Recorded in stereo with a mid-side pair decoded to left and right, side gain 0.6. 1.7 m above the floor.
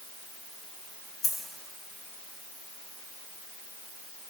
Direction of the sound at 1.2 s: 35° left.